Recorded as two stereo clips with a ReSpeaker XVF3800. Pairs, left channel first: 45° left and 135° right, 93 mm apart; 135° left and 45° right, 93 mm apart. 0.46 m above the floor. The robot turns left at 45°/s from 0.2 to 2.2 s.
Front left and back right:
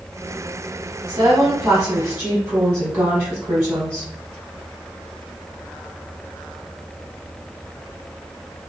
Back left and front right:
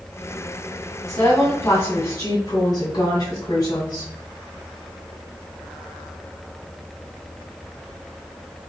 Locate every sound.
1.1 s a woman speaking: 170° right, 1.6 m; by 4.1 s 140° left, 1.6 m